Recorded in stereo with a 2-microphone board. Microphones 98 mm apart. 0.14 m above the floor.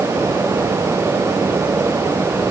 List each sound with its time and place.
Only background noise.